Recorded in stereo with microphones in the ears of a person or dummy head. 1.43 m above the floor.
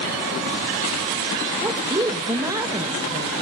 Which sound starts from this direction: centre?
A woman speaking, at 1.6 s.